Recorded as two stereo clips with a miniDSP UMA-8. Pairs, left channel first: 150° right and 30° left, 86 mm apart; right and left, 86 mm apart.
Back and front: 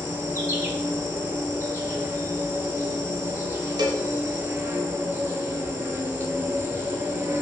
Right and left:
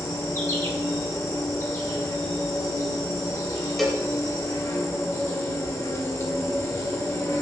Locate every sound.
0.0 s an insect: 35° right, 0.7 m
3.8 s a cowbell: straight ahead, 0.6 m